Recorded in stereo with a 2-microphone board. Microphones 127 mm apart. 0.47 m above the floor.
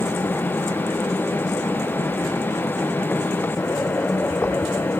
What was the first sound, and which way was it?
Only background noise.